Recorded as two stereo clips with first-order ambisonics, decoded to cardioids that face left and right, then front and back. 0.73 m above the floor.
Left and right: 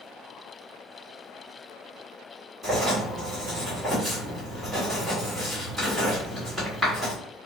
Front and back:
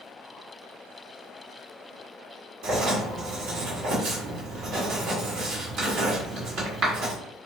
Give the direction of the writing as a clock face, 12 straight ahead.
6 o'clock.